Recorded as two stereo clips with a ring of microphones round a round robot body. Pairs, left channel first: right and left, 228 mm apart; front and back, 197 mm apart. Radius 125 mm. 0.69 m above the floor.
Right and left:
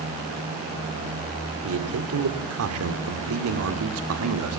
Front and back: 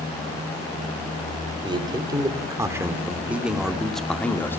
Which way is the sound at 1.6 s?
115° left.